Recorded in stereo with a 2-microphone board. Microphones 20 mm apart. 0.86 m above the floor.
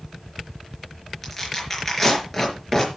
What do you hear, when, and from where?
1.2 s tearing paper: 5° left (ahead or behind), 4.5 m